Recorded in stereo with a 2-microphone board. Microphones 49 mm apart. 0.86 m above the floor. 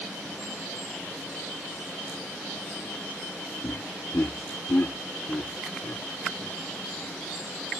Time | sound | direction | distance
3.6 | laughter | 65° left (ahead or behind) | ?